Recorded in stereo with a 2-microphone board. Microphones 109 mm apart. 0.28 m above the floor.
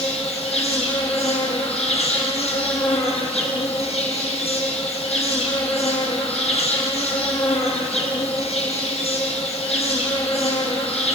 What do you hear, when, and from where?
0.0 s an insect: 70° left (ahead or behind), 6 m